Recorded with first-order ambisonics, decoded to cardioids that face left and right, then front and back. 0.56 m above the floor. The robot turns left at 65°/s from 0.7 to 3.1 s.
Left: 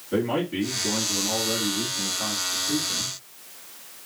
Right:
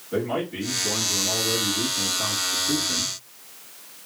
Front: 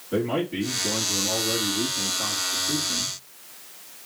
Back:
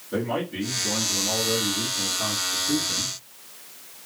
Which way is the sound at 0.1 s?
45° left.